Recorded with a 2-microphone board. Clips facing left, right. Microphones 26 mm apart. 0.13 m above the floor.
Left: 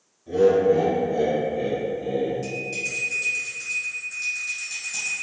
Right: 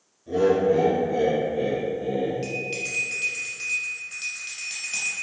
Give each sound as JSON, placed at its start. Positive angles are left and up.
{"t": 0.3, "sound": "laughter", "side_deg": 0, "distance_m": 1.5}
{"t": 2.4, "sound": "a bell", "side_deg": -40, "distance_m": 1.1}